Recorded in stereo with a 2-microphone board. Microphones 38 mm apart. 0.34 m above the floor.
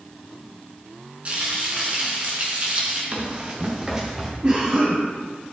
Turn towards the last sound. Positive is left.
turn(degrees=-25)  # may be behind; listen again after turning